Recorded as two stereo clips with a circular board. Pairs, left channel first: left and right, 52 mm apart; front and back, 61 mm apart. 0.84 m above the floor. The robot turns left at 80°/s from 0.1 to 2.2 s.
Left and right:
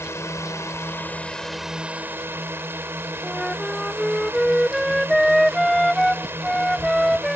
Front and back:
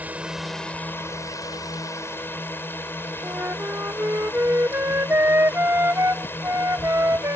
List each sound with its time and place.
0.0 s a drone: 120° left; by 7.4 s 50° right
3.2 s a flute: 175° left